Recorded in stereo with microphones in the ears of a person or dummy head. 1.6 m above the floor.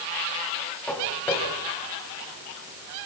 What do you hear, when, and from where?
0.9 s footsteps: 10° left (ahead or behind), 9 m; by 3.1 s 25° left (ahead or behind), 7.5 m